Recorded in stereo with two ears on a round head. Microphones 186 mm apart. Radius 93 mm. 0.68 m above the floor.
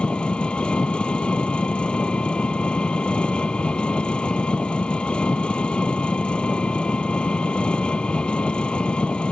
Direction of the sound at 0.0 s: 5° left (ahead or behind).